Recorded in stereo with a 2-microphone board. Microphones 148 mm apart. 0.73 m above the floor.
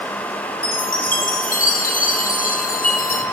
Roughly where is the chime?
Left.